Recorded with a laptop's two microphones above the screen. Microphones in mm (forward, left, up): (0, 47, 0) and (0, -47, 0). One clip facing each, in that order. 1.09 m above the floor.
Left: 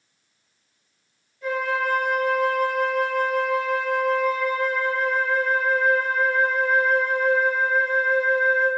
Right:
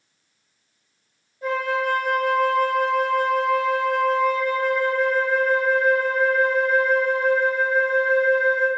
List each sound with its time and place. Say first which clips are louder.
1.4 s a flute: right 1 dB; 35° right (ahead or behind), 2 m